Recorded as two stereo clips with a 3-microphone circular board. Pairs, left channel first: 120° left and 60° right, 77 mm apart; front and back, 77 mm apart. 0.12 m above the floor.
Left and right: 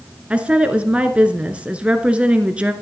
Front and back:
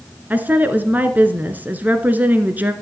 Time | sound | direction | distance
0.3 | a woman speaking | 125° right | 1.3 m